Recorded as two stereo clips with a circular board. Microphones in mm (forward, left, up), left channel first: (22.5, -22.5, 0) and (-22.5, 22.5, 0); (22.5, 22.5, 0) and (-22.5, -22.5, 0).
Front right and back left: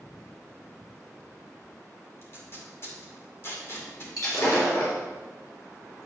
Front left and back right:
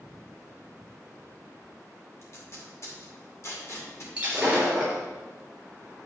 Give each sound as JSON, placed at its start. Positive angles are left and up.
{"t": 2.2, "sound": "tape being pulled", "azimuth_deg": 5, "distance_m": 2.5}
{"t": 4.2, "sound": "breaking glass", "azimuth_deg": -65, "distance_m": 4.0}